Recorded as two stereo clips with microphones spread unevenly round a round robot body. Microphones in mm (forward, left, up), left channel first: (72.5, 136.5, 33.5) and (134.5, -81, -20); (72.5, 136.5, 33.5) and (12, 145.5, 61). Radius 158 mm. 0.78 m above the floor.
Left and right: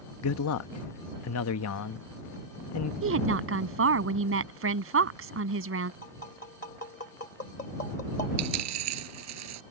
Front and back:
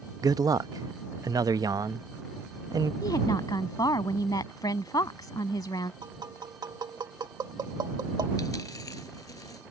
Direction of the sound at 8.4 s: 80° right.